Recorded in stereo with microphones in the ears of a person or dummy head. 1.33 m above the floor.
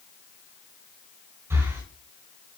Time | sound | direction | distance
1.5 | breathing | 10° right (ahead or behind) | 3.5 m